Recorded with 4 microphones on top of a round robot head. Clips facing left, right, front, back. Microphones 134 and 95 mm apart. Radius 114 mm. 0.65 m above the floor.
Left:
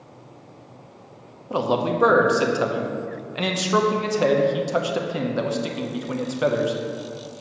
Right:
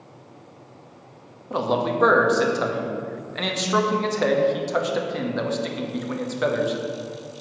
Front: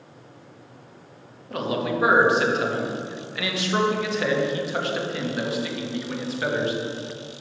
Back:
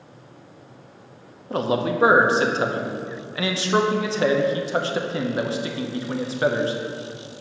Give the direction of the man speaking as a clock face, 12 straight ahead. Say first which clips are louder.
Left 1 dB, back 3 dB; 7 o'clock.